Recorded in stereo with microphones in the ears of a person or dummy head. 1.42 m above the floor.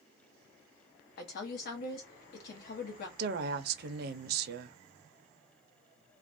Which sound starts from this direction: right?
A woman speaking, at 3.2 s.